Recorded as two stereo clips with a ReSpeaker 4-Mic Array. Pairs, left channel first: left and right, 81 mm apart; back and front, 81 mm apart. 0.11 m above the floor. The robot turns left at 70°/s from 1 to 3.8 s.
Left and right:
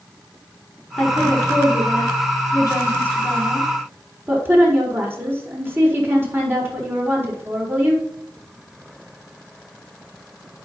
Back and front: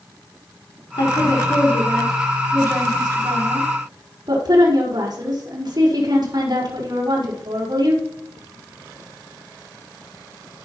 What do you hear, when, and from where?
1.0 s a woman speaking: 165° left, 6 m; by 8.0 s 30° right, 6 m